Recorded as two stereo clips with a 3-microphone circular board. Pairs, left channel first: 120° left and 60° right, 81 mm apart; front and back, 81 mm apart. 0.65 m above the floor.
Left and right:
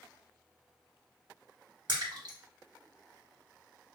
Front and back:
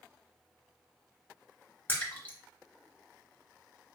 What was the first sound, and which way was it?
A splash, 65° right.